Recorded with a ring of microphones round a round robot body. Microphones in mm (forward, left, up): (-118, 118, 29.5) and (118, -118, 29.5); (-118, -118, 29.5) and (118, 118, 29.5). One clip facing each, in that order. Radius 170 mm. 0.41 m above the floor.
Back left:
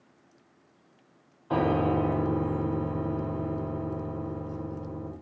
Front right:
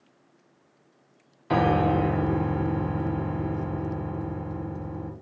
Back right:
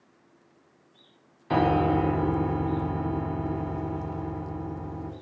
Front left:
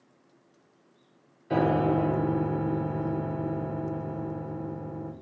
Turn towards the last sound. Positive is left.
turn(degrees=-70)